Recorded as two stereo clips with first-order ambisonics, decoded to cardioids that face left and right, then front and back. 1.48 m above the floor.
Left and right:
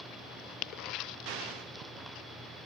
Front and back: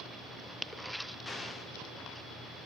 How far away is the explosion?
About 0.7 m.